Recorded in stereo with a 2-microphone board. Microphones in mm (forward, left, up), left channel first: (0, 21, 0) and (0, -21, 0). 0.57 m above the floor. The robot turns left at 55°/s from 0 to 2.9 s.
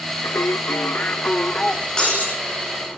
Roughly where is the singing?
Left.